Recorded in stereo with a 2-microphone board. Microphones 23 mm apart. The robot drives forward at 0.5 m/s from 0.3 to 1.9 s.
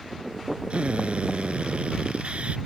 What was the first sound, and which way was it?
A drill, 55° right (ahead or behind).